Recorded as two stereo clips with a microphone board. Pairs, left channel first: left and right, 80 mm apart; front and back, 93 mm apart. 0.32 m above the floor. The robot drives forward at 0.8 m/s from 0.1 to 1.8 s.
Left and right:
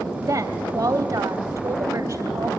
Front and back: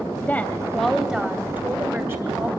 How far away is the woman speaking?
About 1.5 m.